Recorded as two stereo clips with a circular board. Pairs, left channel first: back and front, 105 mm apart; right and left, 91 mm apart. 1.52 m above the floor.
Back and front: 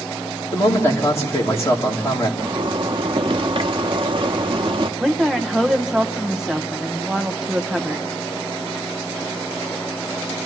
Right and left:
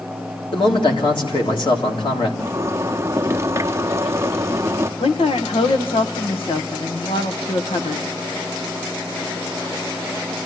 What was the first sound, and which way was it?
A man speaking, 115° right.